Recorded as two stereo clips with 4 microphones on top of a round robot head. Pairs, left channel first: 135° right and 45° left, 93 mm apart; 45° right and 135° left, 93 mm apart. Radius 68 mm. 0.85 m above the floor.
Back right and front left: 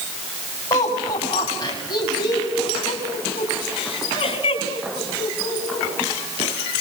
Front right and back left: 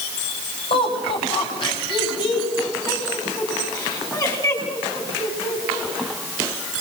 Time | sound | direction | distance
0.7 | laughter | 80° right | 7.5 m